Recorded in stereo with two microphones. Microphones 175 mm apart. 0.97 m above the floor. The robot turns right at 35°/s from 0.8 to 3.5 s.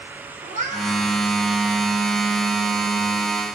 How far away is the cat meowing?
About 1.9 m.